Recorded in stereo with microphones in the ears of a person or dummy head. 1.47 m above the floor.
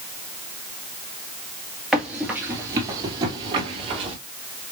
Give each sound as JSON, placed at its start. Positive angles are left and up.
{"t": 1.9, "sound": "running footsteps", "side_deg": 0, "distance_m": 1.6}